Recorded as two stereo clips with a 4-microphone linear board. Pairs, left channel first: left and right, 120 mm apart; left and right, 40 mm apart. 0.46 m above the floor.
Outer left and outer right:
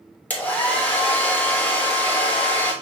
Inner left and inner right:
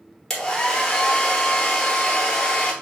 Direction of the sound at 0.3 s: 15° left (ahead or behind).